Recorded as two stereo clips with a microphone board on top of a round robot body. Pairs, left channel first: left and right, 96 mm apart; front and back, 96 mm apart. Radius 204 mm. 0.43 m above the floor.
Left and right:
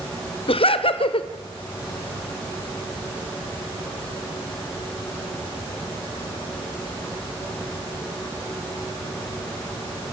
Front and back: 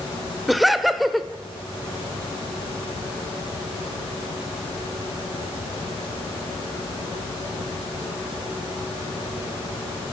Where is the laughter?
90° left, 2 m.